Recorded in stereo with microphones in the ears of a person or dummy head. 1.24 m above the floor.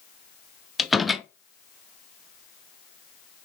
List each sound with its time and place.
0.8 s a door slam: centre (ahead or behind), 0.6 m